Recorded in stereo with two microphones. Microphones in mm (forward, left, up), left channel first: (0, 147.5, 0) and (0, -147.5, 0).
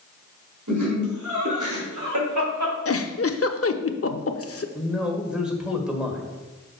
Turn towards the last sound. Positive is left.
turn(degrees=-5)  # may be behind; listen again after turning